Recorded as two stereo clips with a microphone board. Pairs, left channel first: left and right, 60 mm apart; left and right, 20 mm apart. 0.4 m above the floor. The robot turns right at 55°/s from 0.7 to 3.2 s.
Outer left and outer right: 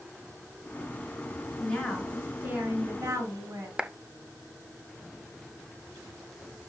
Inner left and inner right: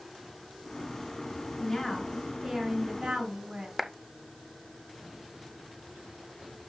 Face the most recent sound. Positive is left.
turn(degrees=-15)  # may be behind; listen again after turning